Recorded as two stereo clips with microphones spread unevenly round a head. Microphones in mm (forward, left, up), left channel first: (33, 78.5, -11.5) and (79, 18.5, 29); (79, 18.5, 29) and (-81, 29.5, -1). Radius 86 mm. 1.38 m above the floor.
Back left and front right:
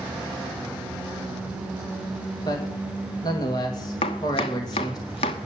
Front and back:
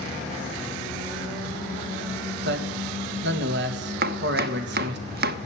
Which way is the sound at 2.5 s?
175° left.